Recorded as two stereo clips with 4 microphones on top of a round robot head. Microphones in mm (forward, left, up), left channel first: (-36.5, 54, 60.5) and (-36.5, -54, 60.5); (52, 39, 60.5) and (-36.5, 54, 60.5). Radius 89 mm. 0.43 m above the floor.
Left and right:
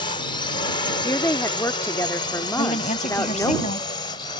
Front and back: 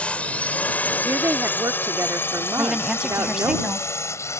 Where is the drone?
65° left; by 4.4 s 45° left.